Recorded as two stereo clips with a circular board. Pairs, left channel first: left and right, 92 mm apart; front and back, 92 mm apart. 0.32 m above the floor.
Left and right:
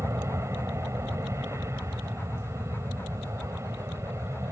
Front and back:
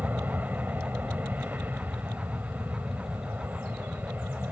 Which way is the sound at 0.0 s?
120° right.